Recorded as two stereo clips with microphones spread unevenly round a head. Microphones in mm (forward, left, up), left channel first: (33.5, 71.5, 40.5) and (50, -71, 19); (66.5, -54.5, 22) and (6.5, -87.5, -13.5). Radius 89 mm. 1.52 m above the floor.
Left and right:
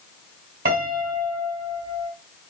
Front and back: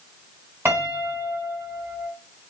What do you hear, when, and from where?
0.7 s a piano: 85° right, 3 m